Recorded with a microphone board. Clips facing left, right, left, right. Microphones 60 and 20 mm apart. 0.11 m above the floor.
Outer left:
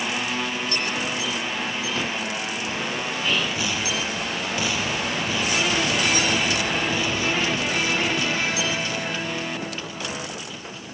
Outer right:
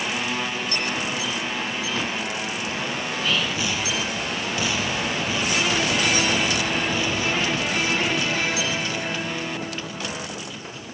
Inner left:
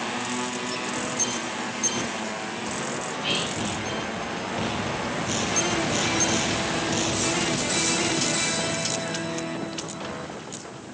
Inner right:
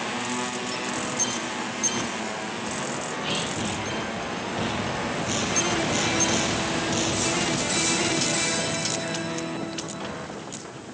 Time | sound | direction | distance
3.1 | whispering | 35° left (ahead or behind) | 1.6 m